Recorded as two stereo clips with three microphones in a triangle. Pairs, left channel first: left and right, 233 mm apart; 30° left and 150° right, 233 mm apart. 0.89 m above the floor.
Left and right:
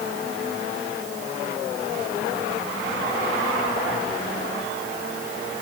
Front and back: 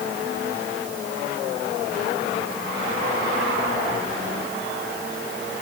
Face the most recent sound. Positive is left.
No sound to turn to.